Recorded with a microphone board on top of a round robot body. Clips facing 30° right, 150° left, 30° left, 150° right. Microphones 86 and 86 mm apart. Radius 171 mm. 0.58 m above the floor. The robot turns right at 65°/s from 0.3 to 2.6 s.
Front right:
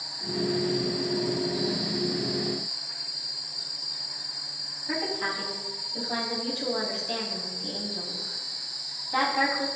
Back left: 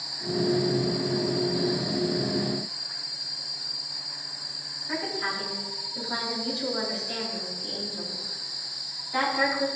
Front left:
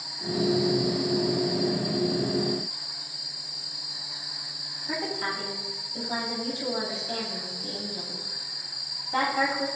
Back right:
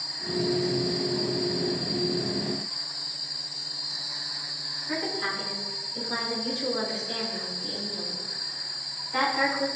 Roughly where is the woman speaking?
Ahead.